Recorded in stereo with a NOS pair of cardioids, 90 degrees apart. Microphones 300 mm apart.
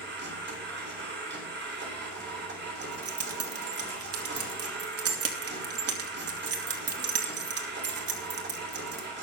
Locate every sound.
0.0 s a machine running: 35° right, 6 m
2.8 s keys jangling: 55° right, 2.5 m